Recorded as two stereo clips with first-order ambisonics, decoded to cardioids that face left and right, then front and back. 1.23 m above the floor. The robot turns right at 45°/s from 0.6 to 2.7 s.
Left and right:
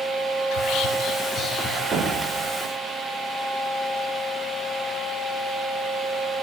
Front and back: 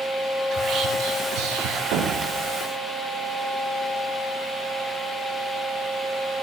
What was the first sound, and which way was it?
Whispering, 120° left.